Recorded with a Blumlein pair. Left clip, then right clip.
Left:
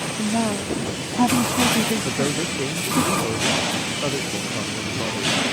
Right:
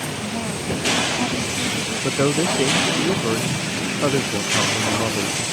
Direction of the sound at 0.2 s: 25° left.